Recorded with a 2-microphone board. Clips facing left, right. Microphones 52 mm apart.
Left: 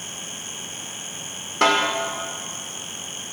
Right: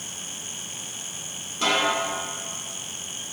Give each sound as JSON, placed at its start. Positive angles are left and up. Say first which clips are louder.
{"t": 1.6, "sound": "a snare drum", "louder": "left 4 dB", "side_deg": 80, "distance_m": 1.9}